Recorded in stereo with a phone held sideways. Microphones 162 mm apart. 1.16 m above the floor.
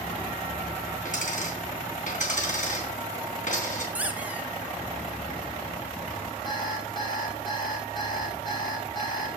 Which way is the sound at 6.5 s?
30° left (ahead or behind).